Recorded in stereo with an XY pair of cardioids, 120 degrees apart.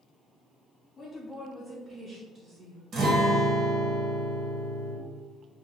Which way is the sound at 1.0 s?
40° left.